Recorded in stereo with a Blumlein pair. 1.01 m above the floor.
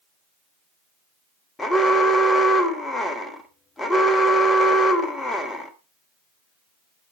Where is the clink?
No clink in this recording.